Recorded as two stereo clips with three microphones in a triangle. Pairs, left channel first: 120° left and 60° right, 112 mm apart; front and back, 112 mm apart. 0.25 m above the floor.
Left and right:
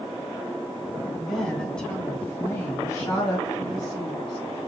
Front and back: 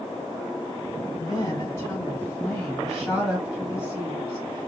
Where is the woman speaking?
30° left, 1.9 m; by 4.7 s 130° left, 2 m.